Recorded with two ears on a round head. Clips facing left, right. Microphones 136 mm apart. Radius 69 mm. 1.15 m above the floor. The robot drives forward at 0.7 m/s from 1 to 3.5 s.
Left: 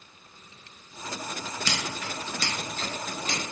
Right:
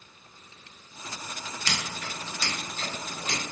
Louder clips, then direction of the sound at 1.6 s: Left 1 dB; 85° left.